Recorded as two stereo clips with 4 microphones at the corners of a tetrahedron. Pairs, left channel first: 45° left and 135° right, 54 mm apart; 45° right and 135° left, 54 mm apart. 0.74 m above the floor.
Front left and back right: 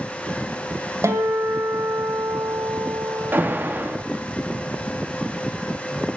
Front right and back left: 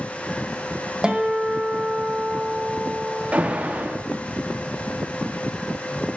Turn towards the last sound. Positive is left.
turn(degrees=-170)